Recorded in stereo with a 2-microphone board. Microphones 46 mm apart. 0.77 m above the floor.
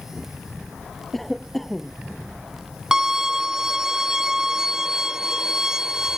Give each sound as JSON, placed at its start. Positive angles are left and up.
{"t": 1.1, "sound": "a cough", "side_deg": 5}
{"t": 2.9, "sound": "a violin", "side_deg": -15}